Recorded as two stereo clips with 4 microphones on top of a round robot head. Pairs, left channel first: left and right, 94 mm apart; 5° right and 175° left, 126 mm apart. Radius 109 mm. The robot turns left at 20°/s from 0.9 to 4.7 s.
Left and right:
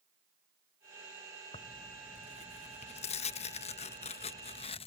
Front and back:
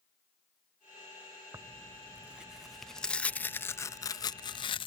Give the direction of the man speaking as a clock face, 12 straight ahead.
No man speaking in this recording.